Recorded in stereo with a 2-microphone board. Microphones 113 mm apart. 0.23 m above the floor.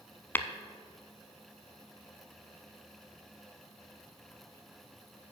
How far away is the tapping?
About 0.6 m.